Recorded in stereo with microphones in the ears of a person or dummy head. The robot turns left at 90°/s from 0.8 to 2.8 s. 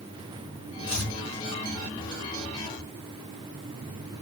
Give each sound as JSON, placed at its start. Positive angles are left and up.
{"t": 0.9, "sound": "chopping", "side_deg": 10, "distance_m": 3.0}